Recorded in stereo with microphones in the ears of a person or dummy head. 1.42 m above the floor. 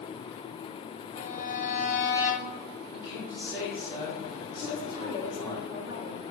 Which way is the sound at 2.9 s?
25° left (ahead or behind).